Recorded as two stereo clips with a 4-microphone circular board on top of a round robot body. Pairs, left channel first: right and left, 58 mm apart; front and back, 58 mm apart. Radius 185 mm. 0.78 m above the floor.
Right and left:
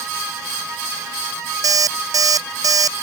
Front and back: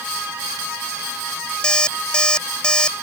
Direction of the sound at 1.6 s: 75° left.